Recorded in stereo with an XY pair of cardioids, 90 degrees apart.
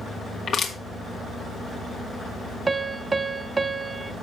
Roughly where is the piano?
Ahead right.